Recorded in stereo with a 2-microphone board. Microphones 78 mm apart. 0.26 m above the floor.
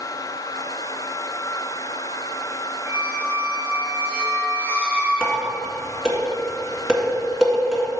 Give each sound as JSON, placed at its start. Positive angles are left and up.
{"t": 2.9, "sound": "a squeak", "side_deg": -20, "distance_m": 1.4}
{"t": 5.2, "sound": "dishes clattering", "side_deg": -5, "distance_m": 2.0}